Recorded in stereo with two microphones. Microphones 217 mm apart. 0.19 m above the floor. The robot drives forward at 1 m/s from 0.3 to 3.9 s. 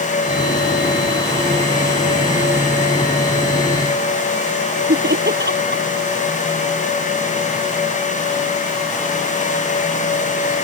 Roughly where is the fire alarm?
No fire alarm in this recording.